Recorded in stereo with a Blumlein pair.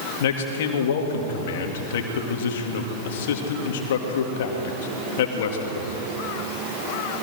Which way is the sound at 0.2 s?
55° left.